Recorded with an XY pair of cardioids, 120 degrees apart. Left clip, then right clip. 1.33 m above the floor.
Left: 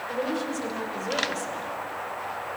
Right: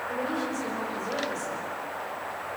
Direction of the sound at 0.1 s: 25° left.